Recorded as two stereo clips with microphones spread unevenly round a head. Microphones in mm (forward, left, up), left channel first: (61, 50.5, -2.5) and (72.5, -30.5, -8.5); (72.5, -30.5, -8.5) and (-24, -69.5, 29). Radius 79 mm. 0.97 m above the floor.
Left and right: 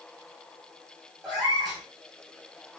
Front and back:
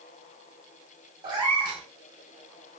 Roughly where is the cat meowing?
Behind.